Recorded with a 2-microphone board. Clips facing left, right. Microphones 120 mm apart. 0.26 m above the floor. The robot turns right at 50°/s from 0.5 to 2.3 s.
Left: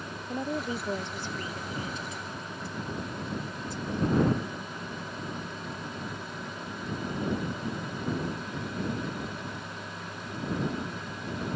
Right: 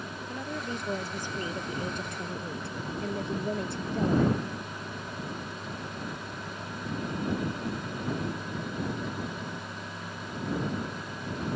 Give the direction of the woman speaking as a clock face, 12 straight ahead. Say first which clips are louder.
Left 5 dB; 7 o'clock.